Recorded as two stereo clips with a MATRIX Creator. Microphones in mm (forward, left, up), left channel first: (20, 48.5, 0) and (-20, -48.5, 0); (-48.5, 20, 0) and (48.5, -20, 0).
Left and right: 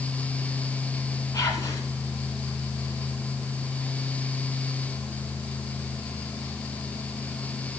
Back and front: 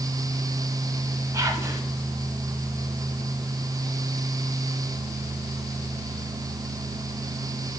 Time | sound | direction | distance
1.3 | whispering | 25° left | 1.6 m